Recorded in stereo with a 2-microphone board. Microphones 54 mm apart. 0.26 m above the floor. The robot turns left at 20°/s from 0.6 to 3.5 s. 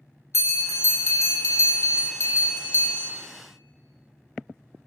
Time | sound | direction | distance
0.3 | a bell | 105° left | 0.8 m